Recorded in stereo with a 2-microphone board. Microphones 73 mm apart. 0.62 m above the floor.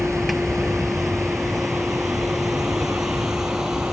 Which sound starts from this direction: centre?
A vehicle, at 0.0 s.